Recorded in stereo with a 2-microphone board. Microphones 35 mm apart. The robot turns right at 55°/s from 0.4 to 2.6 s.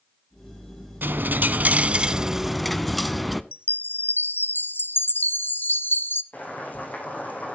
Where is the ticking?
No ticking in this recording.